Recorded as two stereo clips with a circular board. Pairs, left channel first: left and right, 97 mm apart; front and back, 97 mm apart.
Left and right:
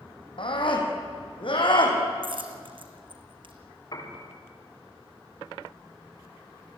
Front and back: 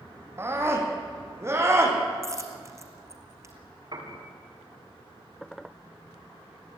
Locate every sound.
0.4 s a scream: 120° left, 4.5 m
2.2 s a dropped coin: 120° right, 1.9 m
3.9 s a piano: 140° left, 7 m